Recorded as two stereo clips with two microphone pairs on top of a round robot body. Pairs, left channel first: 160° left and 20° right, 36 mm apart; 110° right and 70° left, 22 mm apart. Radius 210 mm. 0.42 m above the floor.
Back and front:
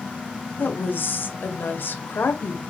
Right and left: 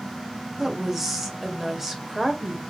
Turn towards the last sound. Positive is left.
turn(degrees=150)